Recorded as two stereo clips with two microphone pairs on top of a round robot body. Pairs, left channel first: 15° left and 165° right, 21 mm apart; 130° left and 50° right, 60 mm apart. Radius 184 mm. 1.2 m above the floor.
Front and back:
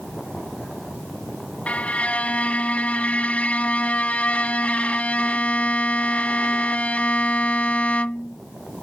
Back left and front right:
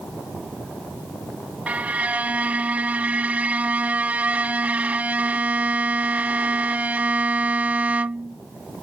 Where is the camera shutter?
I don't hear a camera shutter.